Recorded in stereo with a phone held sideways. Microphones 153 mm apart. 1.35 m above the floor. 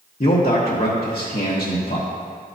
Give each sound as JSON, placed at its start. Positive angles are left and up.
{"t": 0.2, "sound": "a man speaking", "side_deg": 70, "distance_m": 1.0}